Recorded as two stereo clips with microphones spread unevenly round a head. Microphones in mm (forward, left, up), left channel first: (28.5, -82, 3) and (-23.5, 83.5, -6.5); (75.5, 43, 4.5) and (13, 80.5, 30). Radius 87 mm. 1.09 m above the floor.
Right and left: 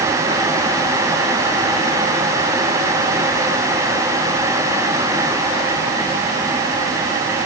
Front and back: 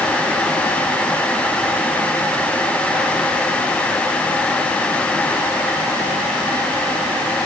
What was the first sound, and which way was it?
Only background noise.